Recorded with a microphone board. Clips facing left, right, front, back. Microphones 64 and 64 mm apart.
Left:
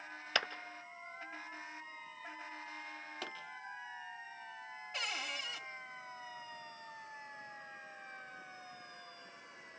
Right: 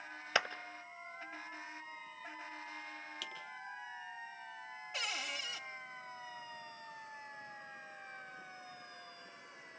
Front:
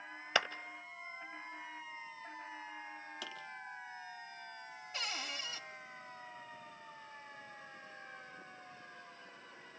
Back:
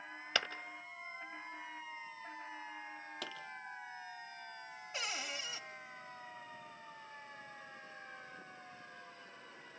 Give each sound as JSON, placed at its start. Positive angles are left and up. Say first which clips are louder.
{"t": 0.3, "sound": "a clap", "louder": "right 2 dB, front 3 dB", "azimuth_deg": -50, "distance_m": 1.3}
{"t": 3.2, "sound": "a pop", "louder": "left 5 dB, back 2 dB", "azimuth_deg": 145, "distance_m": 4.5}
{"t": 4.9, "sound": "a cupboard door", "louder": "even, even", "azimuth_deg": -170, "distance_m": 1.7}